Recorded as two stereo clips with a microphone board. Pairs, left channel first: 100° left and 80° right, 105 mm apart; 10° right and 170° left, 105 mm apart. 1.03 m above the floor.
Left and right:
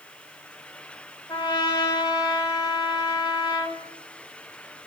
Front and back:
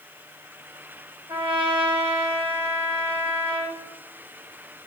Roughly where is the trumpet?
Behind left.